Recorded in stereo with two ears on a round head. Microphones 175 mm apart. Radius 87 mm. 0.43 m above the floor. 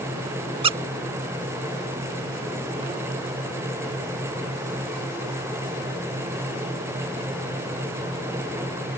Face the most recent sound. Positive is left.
turn(degrees=-30)  # may be behind; listen again after turning